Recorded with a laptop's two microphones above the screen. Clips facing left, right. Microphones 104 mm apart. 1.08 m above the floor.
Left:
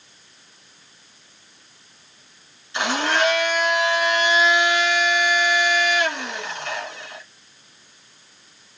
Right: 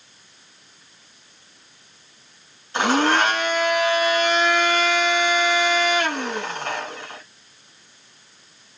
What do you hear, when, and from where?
2.7 s a blender: 45° right (ahead or behind), 2.5 m